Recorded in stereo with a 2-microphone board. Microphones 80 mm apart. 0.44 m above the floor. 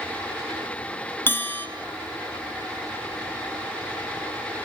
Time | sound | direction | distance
1.3 | a bell | 25° left (ahead or behind) | 3.5 m